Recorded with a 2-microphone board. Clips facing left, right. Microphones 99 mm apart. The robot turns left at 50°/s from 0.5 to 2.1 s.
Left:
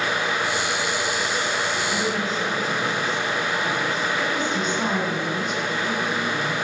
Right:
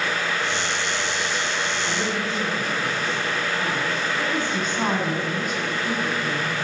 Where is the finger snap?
No finger snap in this recording.